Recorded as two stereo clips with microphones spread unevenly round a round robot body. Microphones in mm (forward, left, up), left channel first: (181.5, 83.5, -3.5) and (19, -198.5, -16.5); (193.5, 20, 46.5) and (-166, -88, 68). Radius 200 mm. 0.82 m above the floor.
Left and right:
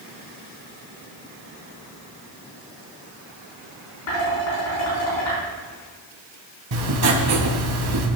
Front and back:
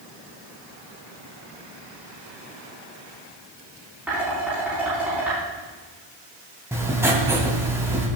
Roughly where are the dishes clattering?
Left.